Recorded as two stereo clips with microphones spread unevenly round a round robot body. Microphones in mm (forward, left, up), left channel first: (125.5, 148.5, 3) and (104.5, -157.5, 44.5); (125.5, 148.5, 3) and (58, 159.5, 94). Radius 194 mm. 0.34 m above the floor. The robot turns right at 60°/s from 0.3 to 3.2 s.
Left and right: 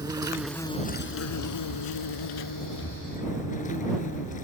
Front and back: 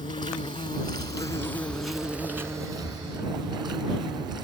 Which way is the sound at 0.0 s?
15° right.